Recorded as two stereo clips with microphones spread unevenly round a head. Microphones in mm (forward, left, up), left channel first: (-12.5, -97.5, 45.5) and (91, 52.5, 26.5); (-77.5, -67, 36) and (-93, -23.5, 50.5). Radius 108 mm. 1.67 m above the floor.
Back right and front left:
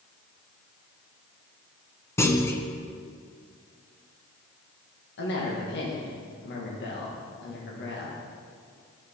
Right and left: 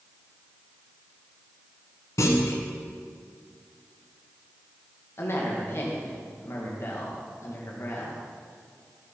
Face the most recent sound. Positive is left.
turn(degrees=-100)